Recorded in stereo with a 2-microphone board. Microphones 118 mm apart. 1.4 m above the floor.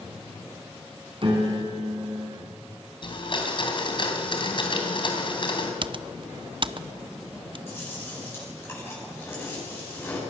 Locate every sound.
1.2 s a piano: 50° right (ahead or behind), 3.5 m
3.0 s a blender: 45° left (ahead or behind), 3 m
5.8 s typing on a keyboard: 45° right (ahead or behind), 0.5 m
7.7 s chewing: 20° left (ahead or behind), 9.5 m